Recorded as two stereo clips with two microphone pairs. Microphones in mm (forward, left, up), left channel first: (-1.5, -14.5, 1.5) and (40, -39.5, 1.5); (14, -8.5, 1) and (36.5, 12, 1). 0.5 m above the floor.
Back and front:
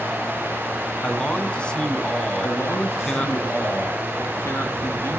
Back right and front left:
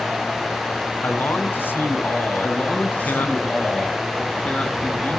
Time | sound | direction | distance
1.0 | a man speaking | 140° right | 4 m
2.4 | a man speaking | straight behind | 8.5 m